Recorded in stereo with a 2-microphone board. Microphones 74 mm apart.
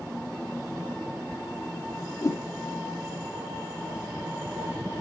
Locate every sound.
2.2 s a whoosh: 40° left (ahead or behind), 2.5 m